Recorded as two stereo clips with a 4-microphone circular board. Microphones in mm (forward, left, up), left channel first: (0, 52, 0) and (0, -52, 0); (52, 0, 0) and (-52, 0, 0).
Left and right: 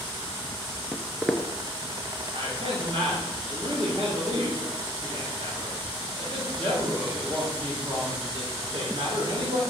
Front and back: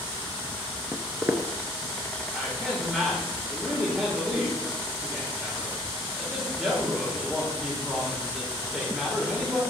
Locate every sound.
0.9 s footsteps: 170° right, 0.6 m
2.3 s a man speaking: 95° right, 2.5 m